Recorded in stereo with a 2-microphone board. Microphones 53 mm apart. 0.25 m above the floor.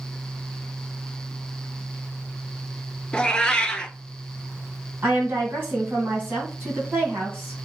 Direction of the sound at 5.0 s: 40° right (ahead or behind).